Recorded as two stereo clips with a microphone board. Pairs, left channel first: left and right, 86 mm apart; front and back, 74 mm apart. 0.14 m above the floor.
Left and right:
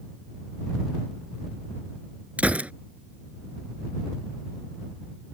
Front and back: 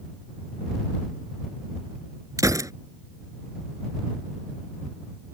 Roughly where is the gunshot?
Behind.